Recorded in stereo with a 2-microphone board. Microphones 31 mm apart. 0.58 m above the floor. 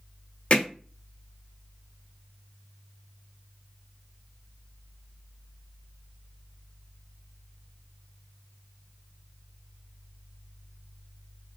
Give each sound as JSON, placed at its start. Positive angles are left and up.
{"t": 0.5, "sound": "hammering", "side_deg": 35, "distance_m": 1.0}